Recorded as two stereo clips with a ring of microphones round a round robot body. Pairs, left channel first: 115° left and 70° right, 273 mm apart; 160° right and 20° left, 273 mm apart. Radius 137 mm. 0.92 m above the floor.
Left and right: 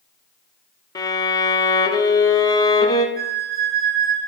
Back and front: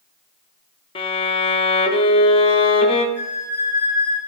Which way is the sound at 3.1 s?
10° right.